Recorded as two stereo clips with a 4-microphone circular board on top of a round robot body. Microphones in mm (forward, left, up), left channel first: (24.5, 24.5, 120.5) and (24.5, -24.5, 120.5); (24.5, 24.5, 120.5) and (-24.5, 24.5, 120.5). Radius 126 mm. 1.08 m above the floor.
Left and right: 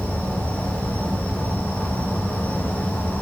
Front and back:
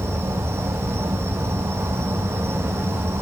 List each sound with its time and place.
0.0 s an insect: 150° left, 1.4 m